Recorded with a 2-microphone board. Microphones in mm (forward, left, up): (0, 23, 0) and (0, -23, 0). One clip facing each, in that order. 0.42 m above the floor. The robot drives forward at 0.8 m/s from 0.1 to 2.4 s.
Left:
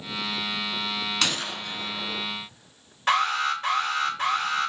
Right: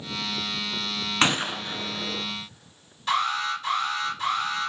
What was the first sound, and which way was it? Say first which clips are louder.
A gunshot: right 4 dB; 30° right (ahead or behind).